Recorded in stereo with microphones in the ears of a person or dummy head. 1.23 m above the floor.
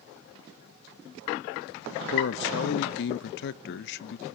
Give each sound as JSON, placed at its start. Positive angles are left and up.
{"t": 2.1, "sound": "a man speaking", "side_deg": 65, "distance_m": 0.7}